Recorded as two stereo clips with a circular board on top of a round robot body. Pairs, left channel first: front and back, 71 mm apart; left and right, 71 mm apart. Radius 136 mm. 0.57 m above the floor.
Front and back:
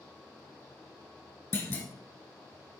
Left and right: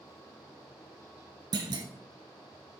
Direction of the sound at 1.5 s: 65° right.